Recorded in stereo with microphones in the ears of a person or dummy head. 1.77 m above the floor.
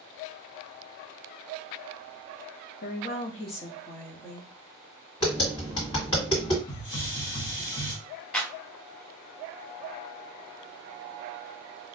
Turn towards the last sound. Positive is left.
turn(degrees=5)  # may be behind; listen again after turning